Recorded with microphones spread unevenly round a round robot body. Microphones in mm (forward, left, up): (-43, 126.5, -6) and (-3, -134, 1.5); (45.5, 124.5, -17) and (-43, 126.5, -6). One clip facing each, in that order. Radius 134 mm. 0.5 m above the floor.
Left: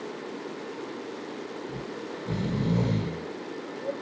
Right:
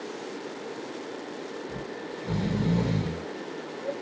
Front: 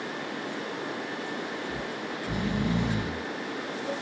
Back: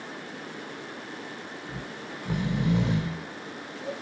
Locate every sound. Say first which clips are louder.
1.7 s snoring: even, front 5 dB; straight behind, 1.9 m